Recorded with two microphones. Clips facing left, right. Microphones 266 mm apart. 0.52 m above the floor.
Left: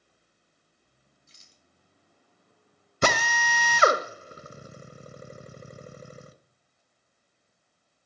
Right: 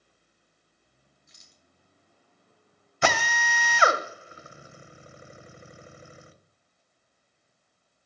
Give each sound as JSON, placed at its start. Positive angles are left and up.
{"t": 1.3, "sound": "a rattle", "side_deg": 30, "distance_m": 1.9}
{"t": 3.0, "sound": "a drill", "side_deg": 40, "distance_m": 1.1}